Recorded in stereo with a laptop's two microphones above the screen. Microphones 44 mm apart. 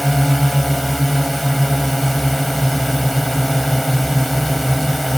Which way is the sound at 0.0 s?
5° left (ahead or behind).